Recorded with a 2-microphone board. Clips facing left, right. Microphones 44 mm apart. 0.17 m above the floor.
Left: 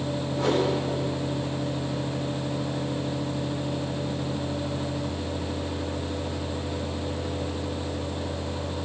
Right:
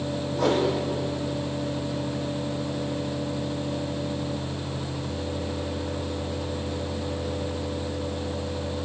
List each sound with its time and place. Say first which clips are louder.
0.3 s a whoosh: right 1 dB; 75° right (ahead or behind), 9 m